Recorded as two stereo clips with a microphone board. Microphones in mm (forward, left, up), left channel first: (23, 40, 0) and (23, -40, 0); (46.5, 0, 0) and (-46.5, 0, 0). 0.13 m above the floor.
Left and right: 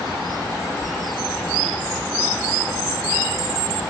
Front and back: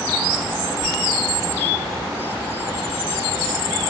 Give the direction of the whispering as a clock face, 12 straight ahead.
4 o'clock.